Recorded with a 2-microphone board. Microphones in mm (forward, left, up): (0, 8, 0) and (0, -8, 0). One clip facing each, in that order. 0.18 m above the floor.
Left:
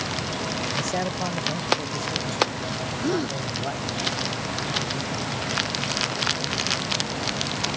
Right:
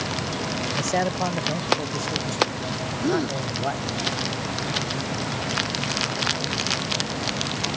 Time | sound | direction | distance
0.8 | a man speaking | 20° right (ahead or behind) | ?
3.0 | a gasp | centre (ahead or behind) | ?